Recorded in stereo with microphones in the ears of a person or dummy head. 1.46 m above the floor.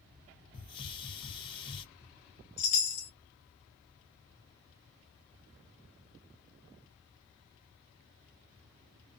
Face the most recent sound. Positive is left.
turn(degrees=50)  # may be behind; listen again after turning